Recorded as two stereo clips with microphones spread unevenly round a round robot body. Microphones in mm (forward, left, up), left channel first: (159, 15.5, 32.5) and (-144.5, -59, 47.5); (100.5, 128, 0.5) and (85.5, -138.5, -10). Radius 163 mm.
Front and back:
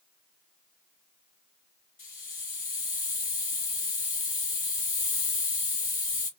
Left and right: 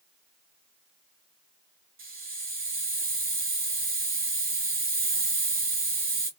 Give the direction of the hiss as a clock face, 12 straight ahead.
1 o'clock.